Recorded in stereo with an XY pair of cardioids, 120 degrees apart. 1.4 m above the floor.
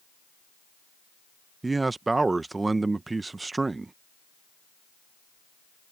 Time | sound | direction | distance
1.6 | a man speaking | 20° right | ?